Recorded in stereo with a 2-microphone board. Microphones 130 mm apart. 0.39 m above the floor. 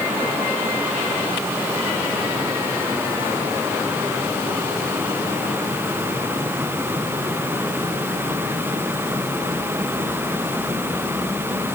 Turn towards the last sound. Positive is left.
No sound to turn to.